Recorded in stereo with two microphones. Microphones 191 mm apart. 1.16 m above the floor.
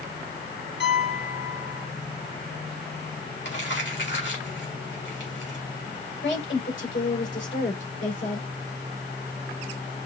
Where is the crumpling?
75° left (ahead or behind), 3 m.